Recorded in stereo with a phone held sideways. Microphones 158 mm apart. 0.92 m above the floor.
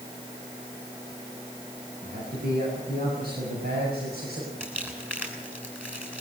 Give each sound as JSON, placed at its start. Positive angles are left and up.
{"t": 2.0, "sound": "a man speaking", "side_deg": -70, "distance_m": 8.5}
{"t": 4.6, "sound": "crumpling", "side_deg": -10, "distance_m": 6.5}